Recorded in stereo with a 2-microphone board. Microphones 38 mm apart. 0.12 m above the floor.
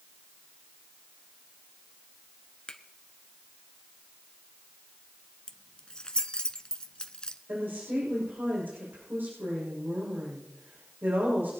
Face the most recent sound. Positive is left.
turn(degrees=-60)  # may be behind; listen again after turning